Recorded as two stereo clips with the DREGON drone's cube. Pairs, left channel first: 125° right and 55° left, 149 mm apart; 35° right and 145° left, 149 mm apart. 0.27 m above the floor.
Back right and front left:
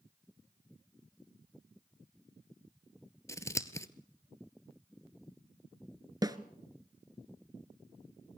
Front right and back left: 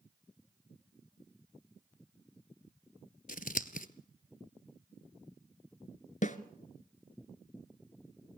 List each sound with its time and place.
3.3 s scissors: 55° right, 1.0 m
6.2 s a snare drum: 10° right, 1.1 m